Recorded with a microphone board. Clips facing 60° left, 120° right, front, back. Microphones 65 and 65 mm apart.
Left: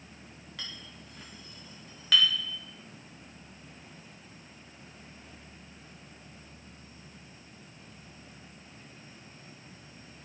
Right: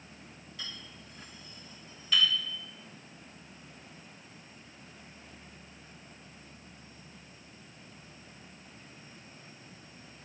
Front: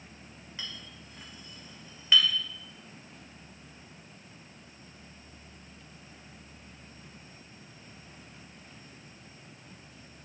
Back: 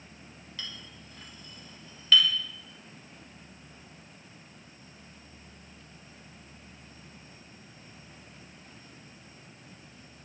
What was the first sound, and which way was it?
A clink, 70° left.